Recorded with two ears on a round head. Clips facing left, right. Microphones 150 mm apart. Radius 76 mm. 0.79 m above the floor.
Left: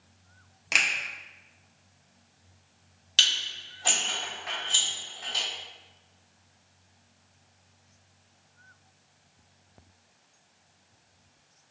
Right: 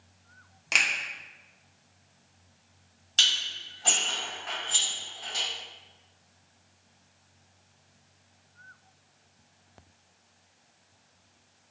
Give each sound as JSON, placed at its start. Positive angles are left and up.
{"t": 0.7, "sound": "a finger snap", "side_deg": 5, "distance_m": 0.7}
{"t": 3.2, "sound": "dishes clattering", "side_deg": 20, "distance_m": 1.6}